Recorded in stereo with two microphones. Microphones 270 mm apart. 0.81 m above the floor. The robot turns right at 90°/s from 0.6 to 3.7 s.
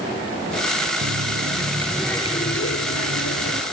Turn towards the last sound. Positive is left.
turn(degrees=150)